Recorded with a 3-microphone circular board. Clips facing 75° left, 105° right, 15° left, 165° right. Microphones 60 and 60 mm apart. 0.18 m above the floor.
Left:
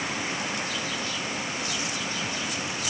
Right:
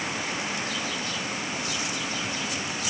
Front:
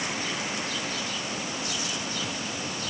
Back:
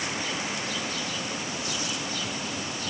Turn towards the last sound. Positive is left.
No sound to turn to.